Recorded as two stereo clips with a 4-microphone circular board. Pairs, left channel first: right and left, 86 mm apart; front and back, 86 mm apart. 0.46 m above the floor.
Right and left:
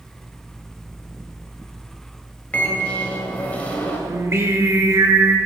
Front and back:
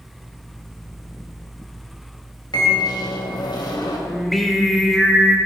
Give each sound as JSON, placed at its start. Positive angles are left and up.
{"t": 2.5, "sound": "a microwave", "azimuth_deg": -20, "distance_m": 2.0}
{"t": 4.1, "sound": "singing", "azimuth_deg": 90, "distance_m": 1.3}